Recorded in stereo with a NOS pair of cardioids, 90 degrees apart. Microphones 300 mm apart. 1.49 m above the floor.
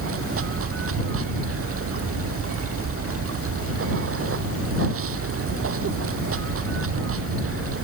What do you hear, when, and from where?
0.0 s running water: 50° right